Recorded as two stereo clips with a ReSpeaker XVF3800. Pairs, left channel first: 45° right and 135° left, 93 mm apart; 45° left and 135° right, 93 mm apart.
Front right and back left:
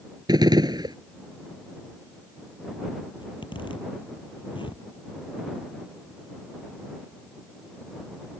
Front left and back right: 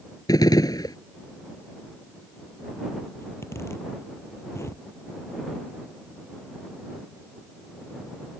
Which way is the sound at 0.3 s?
95° left.